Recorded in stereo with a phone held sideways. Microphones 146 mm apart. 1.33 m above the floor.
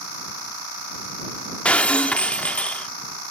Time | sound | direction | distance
1.6 | breaking glass | 10° left (ahead or behind) | ?